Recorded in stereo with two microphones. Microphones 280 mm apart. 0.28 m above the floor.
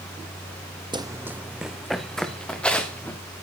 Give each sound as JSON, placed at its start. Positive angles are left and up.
{"t": 0.9, "sound": "running footsteps", "side_deg": -15, "distance_m": 0.6}